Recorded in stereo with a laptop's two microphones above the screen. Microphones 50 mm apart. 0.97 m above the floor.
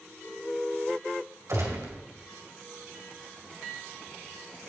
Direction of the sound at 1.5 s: 70° right (ahead or behind).